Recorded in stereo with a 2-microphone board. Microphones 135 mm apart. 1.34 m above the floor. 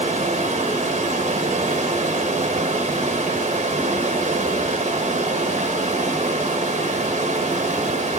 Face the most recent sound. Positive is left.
turn(degrees=-55)  # may be behind; listen again after turning